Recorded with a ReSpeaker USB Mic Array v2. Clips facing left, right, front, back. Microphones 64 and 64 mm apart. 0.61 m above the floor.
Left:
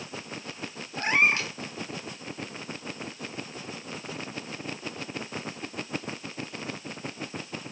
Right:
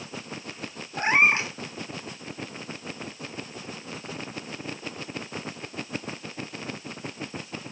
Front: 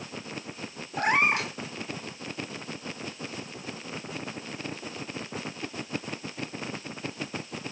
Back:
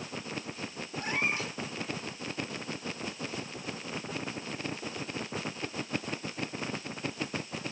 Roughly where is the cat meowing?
Ahead right.